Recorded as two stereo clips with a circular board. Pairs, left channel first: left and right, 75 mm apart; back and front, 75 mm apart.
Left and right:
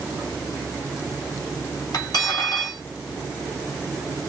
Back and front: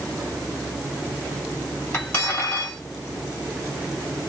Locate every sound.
1.9 s cutlery clinking: 120° left, 2.5 m